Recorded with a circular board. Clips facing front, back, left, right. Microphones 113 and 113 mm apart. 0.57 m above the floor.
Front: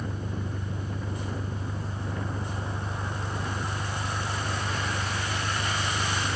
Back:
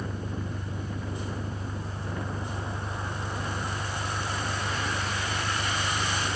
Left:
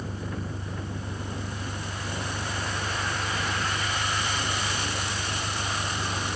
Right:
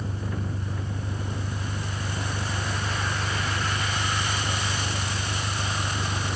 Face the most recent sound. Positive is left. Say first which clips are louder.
# even, right 2 dB
turn(degrees=-70)